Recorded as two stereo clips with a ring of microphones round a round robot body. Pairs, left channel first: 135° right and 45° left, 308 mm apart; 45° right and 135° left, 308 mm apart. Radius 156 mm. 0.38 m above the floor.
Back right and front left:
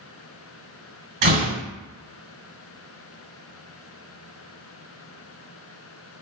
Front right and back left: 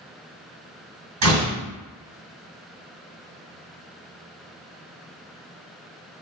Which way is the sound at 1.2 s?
105° left.